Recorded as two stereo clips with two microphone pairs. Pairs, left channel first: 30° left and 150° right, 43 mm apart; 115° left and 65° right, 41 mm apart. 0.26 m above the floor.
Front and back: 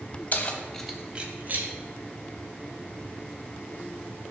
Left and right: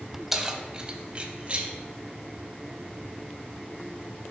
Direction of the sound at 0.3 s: 10° left.